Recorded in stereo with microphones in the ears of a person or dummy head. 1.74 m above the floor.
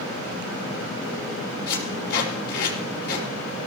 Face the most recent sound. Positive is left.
turn(degrees=55)  # may be behind; listen again after turning